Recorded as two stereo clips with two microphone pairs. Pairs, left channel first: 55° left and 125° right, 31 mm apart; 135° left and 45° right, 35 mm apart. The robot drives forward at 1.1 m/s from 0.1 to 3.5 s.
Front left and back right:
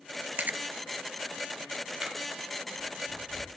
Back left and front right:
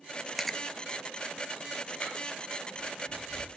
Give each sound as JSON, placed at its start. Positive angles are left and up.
{"t": 0.4, "sound": "chewing", "azimuth_deg": -135, "distance_m": 0.6}